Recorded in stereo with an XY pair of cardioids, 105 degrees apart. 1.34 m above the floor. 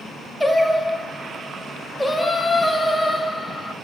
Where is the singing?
5° left, 2.5 m.